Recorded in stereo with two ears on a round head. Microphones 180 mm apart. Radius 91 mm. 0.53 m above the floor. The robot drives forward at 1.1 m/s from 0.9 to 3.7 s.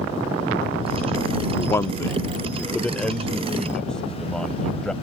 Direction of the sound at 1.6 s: 15° left (ahead or behind).